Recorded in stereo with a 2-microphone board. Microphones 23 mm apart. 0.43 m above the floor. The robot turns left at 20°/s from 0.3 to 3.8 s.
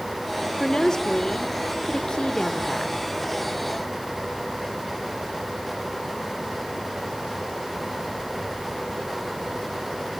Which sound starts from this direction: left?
A woman speaking, at 0.6 s.